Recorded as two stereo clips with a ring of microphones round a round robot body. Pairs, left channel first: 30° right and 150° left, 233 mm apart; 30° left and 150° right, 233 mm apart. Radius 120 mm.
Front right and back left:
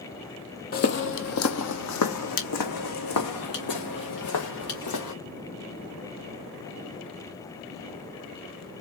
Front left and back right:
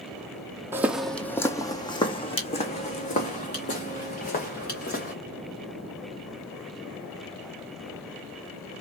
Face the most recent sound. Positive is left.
turn(degrees=-25)